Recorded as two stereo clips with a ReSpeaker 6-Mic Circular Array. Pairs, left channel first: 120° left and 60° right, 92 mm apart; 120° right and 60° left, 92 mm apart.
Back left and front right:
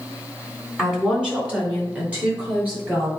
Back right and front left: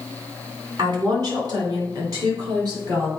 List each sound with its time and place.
0.8 s a woman speaking: 20° left, 2.5 m; by 3.1 s 10° left, 5.5 m